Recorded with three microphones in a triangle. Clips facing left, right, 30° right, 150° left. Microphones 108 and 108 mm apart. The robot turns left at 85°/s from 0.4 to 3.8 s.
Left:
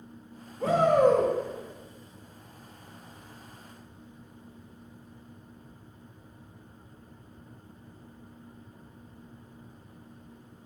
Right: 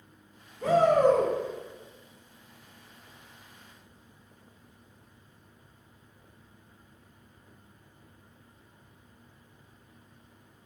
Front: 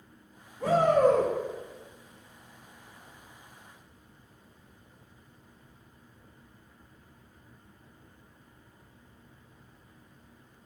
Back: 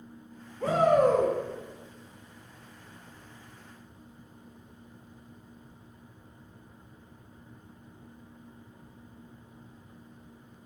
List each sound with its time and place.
0.6 s a shout: 50° left, 0.8 m; by 1.3 s 15° right, 0.8 m